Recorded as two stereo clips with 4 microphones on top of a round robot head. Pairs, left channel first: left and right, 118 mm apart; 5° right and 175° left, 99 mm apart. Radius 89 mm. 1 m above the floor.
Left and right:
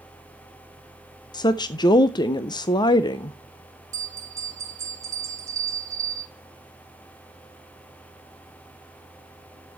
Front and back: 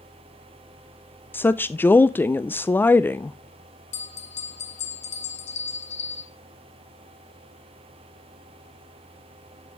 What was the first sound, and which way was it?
A woman speaking, 55° left.